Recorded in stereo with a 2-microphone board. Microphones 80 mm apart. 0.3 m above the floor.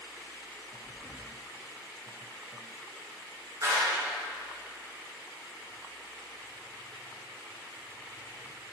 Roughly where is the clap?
Right.